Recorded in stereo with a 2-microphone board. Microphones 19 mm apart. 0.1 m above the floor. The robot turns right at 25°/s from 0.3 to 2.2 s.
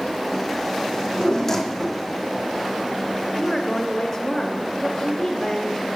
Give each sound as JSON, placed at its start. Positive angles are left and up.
{"t": 0.9, "sound": "a drawer", "side_deg": 30, "distance_m": 1.4}
{"t": 3.3, "sound": "a woman speaking", "side_deg": 20, "distance_m": 1.2}